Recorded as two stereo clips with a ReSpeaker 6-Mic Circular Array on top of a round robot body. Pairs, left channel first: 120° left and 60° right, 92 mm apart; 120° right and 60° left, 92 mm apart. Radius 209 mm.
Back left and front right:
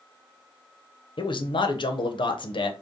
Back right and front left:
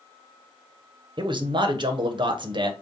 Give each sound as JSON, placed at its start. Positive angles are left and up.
{"t": 1.2, "sound": "a man speaking", "azimuth_deg": 90, "distance_m": 0.8}